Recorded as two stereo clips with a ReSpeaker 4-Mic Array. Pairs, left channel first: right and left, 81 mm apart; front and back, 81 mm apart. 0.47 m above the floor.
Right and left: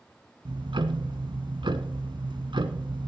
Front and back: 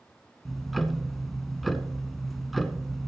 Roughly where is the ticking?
Left.